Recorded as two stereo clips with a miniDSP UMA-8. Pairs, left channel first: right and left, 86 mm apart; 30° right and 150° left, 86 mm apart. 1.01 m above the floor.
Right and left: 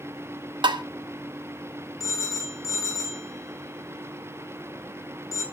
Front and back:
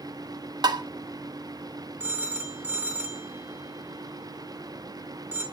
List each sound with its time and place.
0.6 s tapping: 110° left, 1.3 m
2.0 s a phone ringing: 140° right, 2.5 m